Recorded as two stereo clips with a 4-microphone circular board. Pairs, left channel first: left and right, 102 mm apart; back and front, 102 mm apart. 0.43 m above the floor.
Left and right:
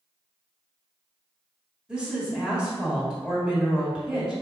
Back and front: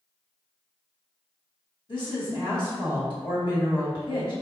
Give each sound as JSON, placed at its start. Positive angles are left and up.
{"t": 1.9, "sound": "a woman speaking", "azimuth_deg": -170, "distance_m": 1.9}